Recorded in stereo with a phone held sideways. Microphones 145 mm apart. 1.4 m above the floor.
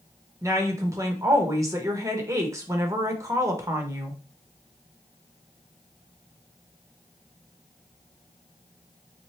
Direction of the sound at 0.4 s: 20° right (ahead or behind).